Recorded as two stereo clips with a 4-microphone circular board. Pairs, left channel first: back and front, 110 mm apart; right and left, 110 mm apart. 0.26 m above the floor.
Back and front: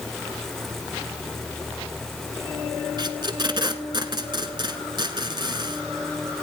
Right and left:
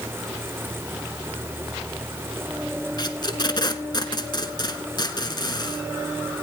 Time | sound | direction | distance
3.0 | tape being pulled | 45° right | 1.3 m